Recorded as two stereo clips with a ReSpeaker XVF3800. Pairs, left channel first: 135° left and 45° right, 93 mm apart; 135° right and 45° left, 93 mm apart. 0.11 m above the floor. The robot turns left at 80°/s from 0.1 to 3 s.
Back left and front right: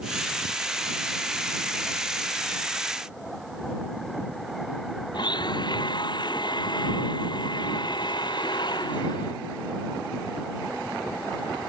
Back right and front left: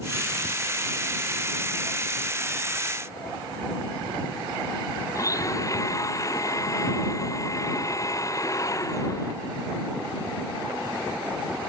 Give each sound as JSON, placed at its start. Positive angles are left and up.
{"t": 5.1, "sound": "a blender", "azimuth_deg": 170}